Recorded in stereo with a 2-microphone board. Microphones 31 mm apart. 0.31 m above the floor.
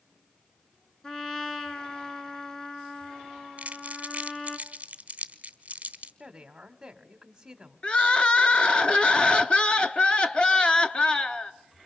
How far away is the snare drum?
I don't hear a snare drum.